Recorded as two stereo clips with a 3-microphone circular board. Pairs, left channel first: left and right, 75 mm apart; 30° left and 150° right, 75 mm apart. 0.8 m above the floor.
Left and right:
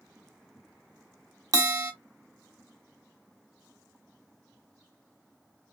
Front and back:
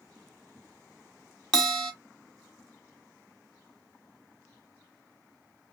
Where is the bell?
50° right, 1.1 m.